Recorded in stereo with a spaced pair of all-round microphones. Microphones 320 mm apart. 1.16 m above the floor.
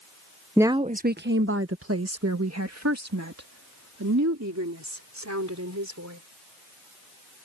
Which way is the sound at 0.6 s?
5° right (ahead or behind).